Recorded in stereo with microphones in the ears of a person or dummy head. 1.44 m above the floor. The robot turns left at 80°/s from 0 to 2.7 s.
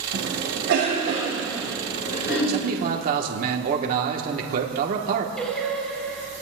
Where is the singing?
5° left (ahead or behind), 5 m.